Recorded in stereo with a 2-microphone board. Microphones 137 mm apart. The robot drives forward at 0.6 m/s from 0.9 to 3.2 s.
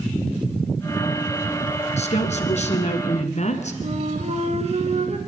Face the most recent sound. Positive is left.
turn(degrees=-50)  # may be behind; listen again after turning